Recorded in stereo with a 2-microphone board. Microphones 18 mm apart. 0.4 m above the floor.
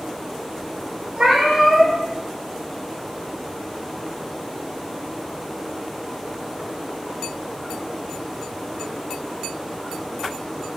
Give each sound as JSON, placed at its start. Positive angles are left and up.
{"t": 1.2, "sound": "a cat meowing", "side_deg": -70, "distance_m": 0.8}